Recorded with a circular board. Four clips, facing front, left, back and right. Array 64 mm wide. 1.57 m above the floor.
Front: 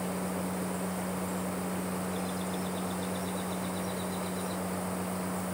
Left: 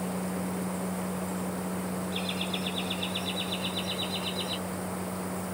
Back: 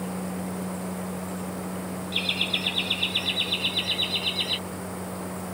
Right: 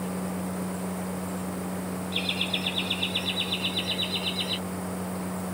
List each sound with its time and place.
2.1 s laughter: 155° right; by 4.6 s 160° right